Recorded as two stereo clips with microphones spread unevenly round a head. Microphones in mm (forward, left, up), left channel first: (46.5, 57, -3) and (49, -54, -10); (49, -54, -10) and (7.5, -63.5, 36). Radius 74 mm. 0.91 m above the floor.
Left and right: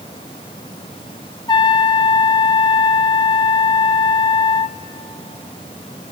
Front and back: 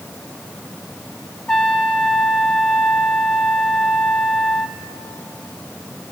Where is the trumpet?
45° left, 1.0 m.